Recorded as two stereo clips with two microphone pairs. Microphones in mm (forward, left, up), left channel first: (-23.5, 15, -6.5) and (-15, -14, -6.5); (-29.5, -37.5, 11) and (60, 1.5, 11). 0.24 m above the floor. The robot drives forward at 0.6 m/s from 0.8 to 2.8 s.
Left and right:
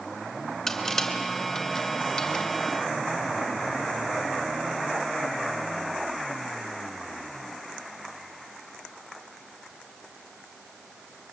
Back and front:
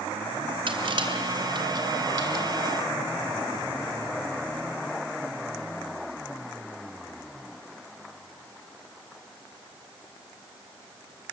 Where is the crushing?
45° left, 3 m; by 2.5 s 60° left, 2.5 m.